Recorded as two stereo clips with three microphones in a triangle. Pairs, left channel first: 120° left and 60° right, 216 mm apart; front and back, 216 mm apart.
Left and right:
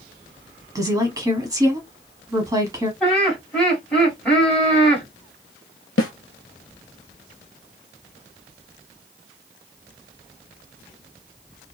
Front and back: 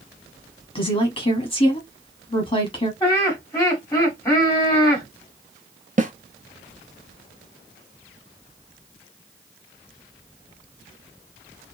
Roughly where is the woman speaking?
Ahead.